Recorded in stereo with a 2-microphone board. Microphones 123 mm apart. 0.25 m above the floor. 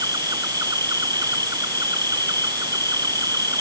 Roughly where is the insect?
Right.